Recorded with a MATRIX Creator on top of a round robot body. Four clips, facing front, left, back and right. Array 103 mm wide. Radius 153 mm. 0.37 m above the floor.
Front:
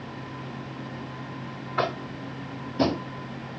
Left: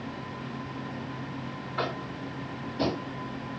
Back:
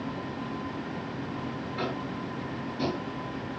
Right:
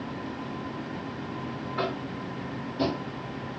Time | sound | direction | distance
1.8 | tapping | straight ahead | 0.5 m